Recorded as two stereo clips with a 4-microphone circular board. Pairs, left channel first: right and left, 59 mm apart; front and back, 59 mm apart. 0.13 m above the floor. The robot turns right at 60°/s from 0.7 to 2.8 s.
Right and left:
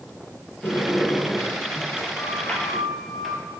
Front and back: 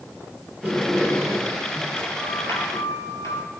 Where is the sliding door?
130° right, 3 m; by 3.4 s straight ahead, 3 m.